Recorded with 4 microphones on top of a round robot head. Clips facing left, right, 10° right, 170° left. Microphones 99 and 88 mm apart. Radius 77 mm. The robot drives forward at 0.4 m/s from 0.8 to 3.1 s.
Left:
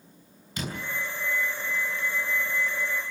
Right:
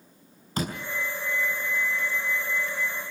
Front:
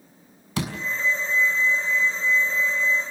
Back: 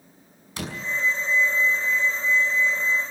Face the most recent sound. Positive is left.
turn(degrees=-35)